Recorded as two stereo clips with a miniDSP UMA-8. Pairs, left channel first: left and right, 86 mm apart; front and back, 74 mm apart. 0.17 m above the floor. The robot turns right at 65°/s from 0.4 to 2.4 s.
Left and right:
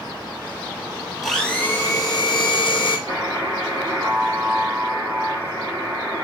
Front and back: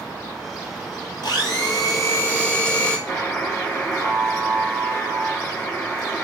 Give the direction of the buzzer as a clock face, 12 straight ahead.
2 o'clock.